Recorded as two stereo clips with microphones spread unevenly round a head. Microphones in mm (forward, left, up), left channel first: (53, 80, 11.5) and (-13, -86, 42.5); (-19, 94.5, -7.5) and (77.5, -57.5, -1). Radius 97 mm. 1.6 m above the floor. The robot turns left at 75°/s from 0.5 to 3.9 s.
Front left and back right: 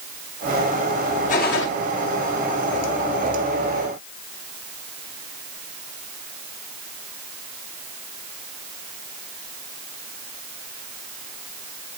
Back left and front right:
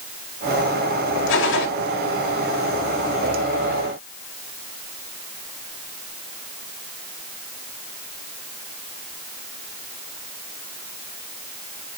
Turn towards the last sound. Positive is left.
turn(degrees=-70)